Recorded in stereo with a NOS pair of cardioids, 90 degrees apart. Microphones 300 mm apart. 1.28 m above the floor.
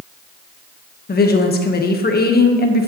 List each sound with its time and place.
1.1 s a woman speaking: 35° left, 1.6 m